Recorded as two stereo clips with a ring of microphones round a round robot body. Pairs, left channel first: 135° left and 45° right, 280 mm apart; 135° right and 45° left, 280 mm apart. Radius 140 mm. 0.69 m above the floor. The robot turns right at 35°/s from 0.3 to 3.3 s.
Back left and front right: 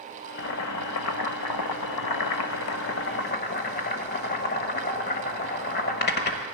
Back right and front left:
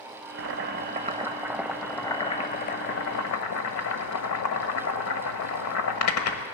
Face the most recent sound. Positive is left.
turn(degrees=-170)